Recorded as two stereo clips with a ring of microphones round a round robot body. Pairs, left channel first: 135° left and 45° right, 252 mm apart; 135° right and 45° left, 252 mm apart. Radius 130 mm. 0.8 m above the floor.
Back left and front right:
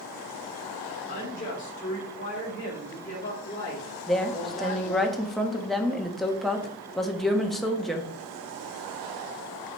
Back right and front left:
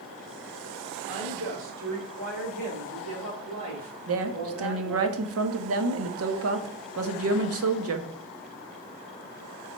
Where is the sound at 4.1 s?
45° left, 1.1 m.